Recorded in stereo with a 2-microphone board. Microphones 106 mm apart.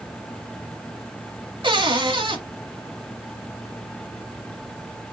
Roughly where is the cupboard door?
Right.